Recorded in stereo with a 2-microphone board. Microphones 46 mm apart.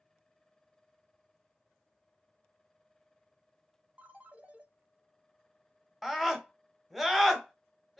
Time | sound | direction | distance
4.0 | a ringtone | 25° right (ahead or behind) | 0.9 m
6.0 | a scream | centre (ahead or behind) | 1.1 m